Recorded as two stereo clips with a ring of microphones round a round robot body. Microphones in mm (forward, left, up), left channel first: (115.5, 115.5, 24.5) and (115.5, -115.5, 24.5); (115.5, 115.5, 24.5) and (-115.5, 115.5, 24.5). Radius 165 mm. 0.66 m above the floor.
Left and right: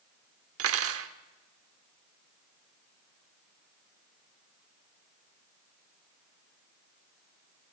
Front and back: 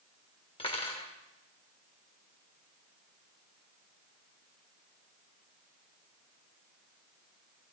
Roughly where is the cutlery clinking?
Right.